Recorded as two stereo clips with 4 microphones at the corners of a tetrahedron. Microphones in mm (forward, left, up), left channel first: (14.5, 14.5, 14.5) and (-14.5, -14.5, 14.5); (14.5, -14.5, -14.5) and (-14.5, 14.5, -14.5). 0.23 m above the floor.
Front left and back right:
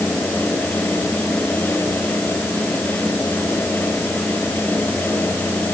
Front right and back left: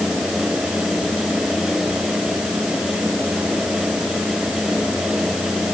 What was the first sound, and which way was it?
Only background noise.